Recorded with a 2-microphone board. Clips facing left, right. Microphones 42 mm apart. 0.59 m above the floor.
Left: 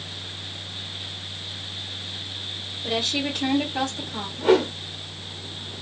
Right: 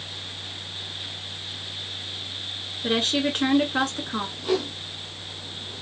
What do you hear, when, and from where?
2.8 s a woman speaking: 60° right (ahead or behind), 2.5 m
4.4 s a whoosh: 50° left (ahead or behind), 0.9 m